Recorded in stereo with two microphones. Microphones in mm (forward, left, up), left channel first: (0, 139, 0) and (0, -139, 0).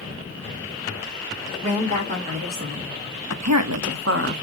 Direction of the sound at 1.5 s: 20° right (ahead or behind).